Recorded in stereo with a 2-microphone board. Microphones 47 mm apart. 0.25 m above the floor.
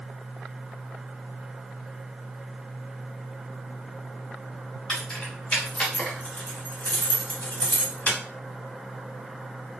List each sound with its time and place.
4.9 s keys jangling: 15° left (ahead or behind), 1.5 m; by 8.2 s 40° left (ahead or behind), 1.0 m